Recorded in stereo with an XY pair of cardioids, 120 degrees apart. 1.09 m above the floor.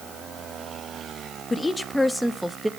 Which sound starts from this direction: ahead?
A woman speaking, at 1.5 s.